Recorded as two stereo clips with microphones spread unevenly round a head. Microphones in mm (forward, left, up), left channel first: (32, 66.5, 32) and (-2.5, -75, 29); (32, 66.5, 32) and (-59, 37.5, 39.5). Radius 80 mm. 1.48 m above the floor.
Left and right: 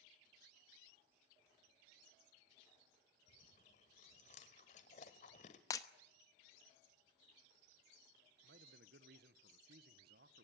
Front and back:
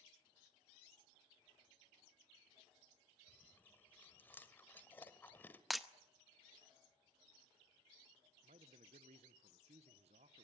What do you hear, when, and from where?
3.3 s chewing: 85° left, 1.5 m
5.7 s breaking glass: 115° left, 0.8 m
8.4 s a man speaking: 130° right, 1.2 m